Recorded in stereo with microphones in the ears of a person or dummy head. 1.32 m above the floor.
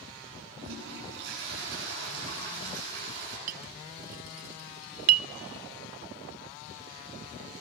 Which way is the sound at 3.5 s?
50° right (ahead or behind).